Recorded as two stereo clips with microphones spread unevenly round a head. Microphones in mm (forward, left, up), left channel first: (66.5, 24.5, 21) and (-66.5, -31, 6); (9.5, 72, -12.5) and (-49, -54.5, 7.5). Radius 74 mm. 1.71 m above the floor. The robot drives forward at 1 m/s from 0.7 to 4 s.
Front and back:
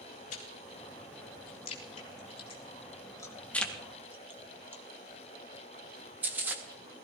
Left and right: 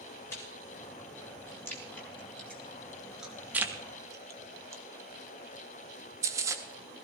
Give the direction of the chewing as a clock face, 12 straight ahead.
12 o'clock.